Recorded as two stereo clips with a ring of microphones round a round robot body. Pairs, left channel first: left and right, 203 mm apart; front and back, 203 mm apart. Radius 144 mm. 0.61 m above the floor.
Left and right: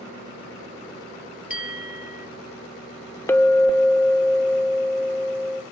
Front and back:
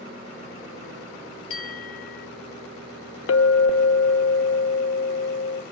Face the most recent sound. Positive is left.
turn(degrees=10)